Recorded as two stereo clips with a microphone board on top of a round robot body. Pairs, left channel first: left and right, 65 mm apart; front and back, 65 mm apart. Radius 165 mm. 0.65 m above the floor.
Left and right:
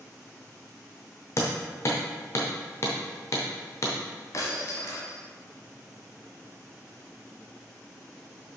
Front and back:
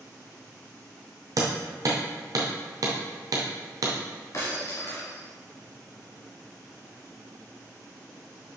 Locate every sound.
1.4 s hammering: 140° left, 0.6 m
4.3 s breaking glass: 50° left, 1.1 m